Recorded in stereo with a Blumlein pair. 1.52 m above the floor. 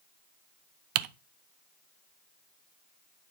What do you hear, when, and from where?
0.9 s typing on a keyboard: 40° right, 0.6 m